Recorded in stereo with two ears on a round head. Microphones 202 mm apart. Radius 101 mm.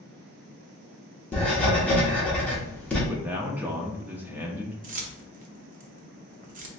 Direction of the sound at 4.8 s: 35° right (ahead or behind).